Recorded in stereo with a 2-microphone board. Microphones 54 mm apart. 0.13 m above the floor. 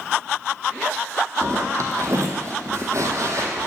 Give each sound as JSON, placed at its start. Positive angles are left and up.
{"t": 1.4, "sound": "a zipper", "side_deg": -70, "distance_m": 0.7}